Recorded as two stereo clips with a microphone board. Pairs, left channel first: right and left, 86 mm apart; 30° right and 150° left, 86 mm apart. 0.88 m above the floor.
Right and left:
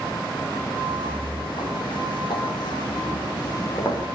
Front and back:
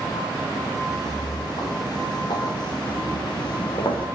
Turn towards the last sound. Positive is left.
turn(degrees=-40)